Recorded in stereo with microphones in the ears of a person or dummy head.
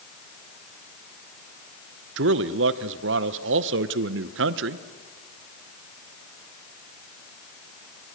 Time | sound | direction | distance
2.2 | a man speaking | 55° right (ahead or behind) | 0.8 m